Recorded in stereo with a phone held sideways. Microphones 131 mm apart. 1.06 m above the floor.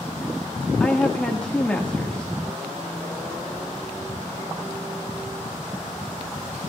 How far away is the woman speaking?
About 1.5 m.